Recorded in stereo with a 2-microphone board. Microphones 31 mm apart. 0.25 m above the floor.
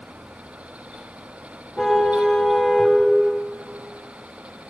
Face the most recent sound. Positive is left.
turn(degrees=0)  # may be behind; listen again after turning